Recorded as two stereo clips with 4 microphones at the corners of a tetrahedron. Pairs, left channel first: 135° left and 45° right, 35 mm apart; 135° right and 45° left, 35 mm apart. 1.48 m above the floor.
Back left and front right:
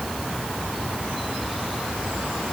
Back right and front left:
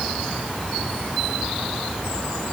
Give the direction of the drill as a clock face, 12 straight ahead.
I don't hear a drill.